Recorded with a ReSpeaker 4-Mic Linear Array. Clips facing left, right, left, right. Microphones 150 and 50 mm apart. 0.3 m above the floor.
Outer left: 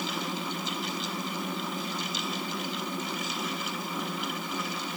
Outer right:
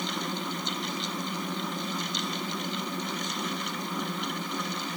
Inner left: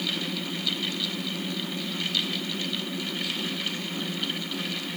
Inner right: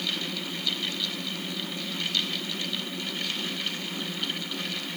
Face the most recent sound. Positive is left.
No sound to turn to.